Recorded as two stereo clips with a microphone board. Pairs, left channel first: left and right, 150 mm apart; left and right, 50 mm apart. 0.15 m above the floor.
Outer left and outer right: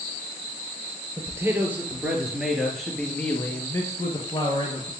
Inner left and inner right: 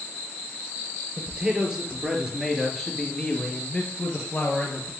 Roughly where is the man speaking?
Centre.